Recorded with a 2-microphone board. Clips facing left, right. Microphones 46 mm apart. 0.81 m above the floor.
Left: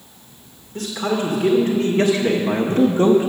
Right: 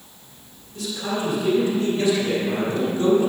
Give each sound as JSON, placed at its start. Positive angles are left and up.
{"t": 0.8, "sound": "a man speaking", "side_deg": 50, "distance_m": 2.0}